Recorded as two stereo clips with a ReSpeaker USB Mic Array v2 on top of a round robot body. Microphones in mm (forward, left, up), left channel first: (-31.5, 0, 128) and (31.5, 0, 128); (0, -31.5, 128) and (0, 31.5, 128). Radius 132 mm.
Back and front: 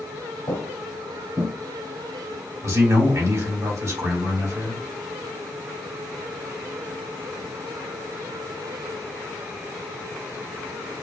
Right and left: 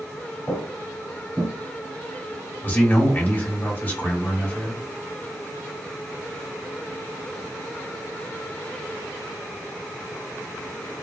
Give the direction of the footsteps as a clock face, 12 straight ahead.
6 o'clock.